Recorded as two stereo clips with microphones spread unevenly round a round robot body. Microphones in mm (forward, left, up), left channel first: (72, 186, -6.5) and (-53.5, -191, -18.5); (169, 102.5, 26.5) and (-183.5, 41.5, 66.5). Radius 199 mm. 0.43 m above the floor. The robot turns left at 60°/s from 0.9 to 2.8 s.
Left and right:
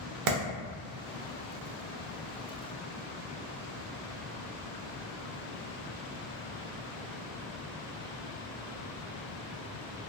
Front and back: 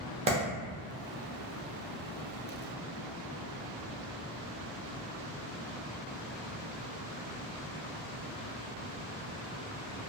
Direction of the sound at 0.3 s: 95° right.